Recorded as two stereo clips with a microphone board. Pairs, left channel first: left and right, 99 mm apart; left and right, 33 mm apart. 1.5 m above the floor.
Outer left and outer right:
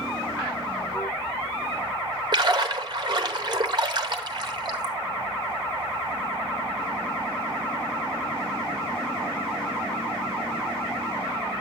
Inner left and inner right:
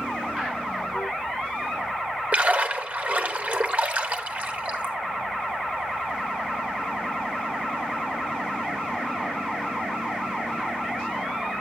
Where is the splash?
45° right (ahead or behind), 1.0 m.